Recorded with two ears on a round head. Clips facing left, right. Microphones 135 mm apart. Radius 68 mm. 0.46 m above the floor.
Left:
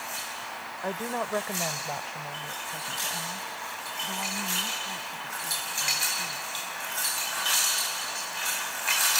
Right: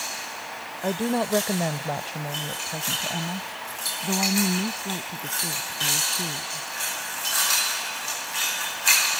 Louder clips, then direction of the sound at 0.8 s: Right 7 dB; 30° right (ahead or behind).